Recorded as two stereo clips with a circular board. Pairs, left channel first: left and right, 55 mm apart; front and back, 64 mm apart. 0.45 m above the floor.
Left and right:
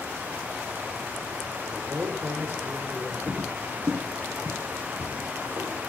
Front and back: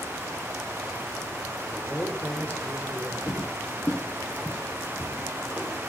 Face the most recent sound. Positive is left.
turn(degrees=-100)